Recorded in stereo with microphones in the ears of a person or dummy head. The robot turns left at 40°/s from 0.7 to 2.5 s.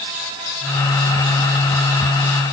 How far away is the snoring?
No snoring in this recording.